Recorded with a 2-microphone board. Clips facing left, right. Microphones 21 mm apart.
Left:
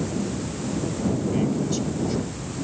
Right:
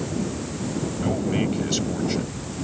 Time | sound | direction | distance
1.0 | a man speaking | 40° right (ahead or behind) | ?